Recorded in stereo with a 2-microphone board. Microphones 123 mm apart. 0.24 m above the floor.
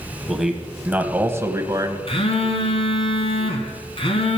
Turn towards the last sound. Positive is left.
turn(degrees=50)  # may be behind; listen again after turning